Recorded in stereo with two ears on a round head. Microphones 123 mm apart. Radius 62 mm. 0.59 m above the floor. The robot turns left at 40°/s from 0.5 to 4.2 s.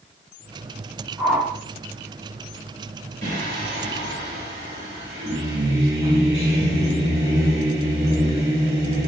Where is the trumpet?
No trumpet in this recording.